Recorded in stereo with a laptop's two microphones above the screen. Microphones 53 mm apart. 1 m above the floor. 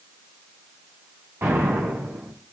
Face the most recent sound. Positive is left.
turn(degrees=-70)  # may be behind; listen again after turning